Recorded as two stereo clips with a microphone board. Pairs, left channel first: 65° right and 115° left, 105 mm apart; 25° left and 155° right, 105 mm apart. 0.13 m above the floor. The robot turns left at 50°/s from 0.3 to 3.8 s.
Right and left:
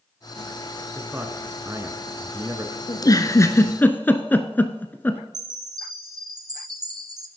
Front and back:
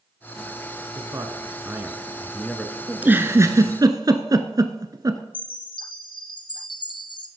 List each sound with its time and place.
0.9 s a man speaking: 175° right, 1.2 m; by 2.8 s 90° left, 1.2 m
2.9 s a giggle: 85° right, 0.8 m; by 5.2 s 130° right, 0.8 m
5.3 s a chime: 60° left, 1.0 m